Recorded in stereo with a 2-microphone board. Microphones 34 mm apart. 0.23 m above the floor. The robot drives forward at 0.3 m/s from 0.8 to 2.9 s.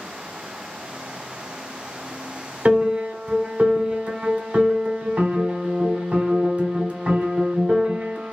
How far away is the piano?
About 1.0 m.